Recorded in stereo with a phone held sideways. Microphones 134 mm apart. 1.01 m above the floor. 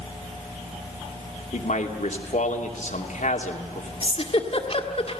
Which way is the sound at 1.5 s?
65° left (ahead or behind).